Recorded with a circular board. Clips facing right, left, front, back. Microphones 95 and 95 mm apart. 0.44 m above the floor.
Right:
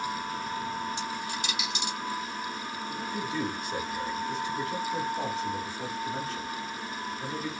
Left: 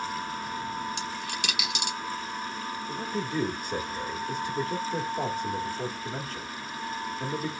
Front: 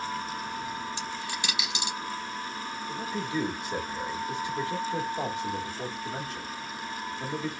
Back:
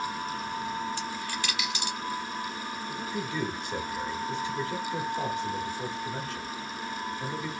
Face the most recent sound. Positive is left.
turn(degrees=70)